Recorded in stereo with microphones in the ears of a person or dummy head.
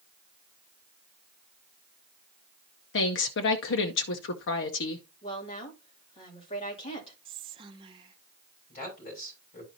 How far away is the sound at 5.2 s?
About 3 m.